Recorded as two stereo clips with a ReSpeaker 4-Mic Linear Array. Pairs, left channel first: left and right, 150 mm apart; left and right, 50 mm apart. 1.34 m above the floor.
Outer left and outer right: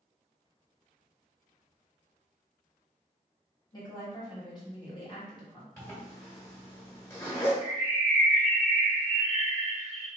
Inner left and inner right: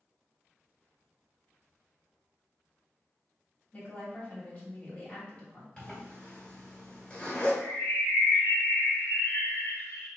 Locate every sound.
3.7 s a woman speaking: 30° left (ahead or behind), 1.6 m
5.8 s a zipper: 20° left (ahead or behind), 1.8 m
7.6 s a bird: 65° left (ahead or behind), 1.7 m